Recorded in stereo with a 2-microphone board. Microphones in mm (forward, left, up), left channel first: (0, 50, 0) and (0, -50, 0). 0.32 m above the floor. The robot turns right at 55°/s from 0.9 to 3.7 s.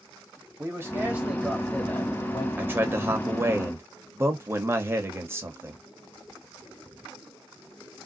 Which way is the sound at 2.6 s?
20° right (ahead or behind).